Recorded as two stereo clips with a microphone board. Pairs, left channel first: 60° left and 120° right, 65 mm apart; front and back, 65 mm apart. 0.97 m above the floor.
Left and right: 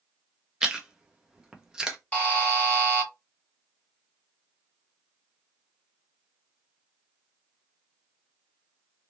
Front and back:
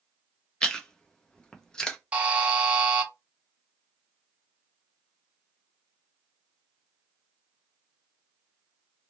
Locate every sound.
0.6 s chewing: 60° right, 0.6 m
2.1 s a buzzer: 120° left, 1.0 m